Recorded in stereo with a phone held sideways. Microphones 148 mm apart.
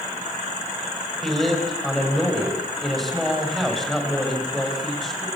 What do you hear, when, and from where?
1.2 s a man speaking: centre (ahead or behind), 6.5 m